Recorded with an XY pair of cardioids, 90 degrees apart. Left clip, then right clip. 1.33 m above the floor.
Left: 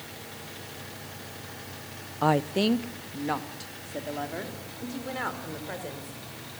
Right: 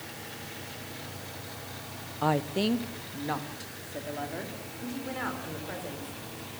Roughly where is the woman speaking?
Ahead left.